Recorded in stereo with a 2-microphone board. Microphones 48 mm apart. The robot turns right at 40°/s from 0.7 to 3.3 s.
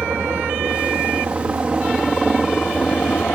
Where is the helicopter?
65° right; by 3.4 s 35° left.